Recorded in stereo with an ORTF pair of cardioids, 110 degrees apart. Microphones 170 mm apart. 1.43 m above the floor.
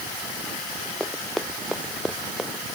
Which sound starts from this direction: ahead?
Running footsteps, at 1.0 s.